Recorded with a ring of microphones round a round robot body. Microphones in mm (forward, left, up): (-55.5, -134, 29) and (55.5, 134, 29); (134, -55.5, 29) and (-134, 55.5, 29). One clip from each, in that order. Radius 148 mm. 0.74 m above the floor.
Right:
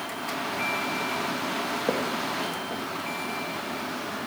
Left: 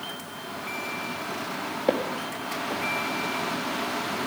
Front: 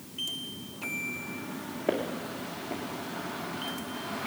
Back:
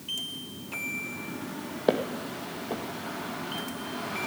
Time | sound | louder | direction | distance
1.9 | footsteps | left 5 dB, back 4 dB | 135° left | 1.9 m